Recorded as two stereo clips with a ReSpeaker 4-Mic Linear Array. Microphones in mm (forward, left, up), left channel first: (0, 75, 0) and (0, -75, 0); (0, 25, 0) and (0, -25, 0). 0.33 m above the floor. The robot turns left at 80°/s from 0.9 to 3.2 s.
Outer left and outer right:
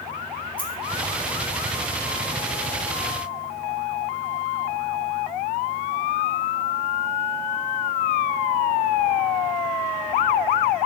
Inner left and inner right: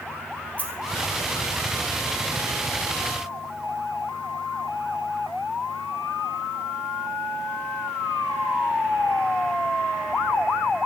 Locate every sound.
0.6 s a dropped coin: 35° left (ahead or behind), 1.4 m